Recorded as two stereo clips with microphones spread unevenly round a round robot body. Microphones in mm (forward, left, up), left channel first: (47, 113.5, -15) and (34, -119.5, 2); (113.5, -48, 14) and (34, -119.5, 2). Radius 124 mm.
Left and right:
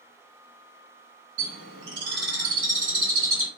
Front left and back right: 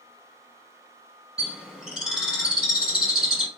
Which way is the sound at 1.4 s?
55° right.